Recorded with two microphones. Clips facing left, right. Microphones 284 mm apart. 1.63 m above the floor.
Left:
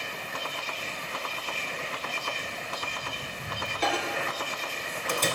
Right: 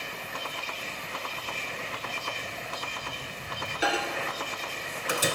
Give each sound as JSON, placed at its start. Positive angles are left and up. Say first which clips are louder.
{"t": 1.4, "sound": "footsteps", "louder": "left 1 dB", "side_deg": -20, "distance_m": 1.7}
{"t": 3.8, "sound": "a microwave", "louder": "even", "side_deg": -10, "distance_m": 1.0}